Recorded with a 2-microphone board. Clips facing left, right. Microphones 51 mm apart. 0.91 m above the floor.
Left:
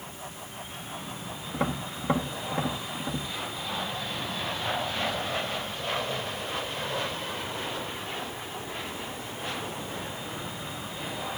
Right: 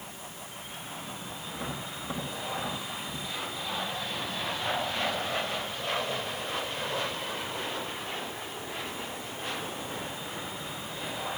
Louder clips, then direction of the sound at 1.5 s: Left 8 dB; 50° left (ahead or behind).